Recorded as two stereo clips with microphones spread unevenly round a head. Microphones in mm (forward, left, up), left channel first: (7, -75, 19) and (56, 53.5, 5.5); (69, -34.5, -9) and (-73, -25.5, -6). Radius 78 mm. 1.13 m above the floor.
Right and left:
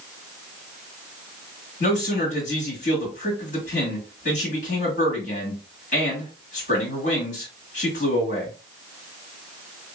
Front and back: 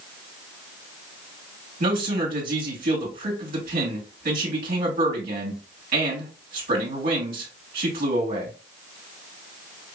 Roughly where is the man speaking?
Behind right.